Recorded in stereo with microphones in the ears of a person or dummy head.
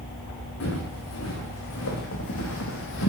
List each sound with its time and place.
0.6 s footsteps: 75° left (ahead or behind), 4.5 m; by 3.1 s 65° left (ahead or behind), 2.5 m